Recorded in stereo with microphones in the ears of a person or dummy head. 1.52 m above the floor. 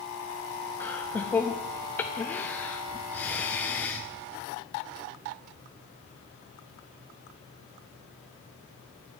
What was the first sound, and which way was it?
Laughter, 10° left (ahead or behind).